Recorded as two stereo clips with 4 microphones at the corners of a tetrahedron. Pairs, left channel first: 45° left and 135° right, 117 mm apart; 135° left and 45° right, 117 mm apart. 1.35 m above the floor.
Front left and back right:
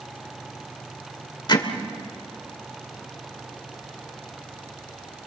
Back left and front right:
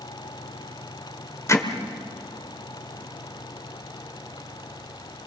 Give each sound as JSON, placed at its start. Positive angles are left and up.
{"t": 1.5, "sound": "hammering", "azimuth_deg": 80, "distance_m": 1.6}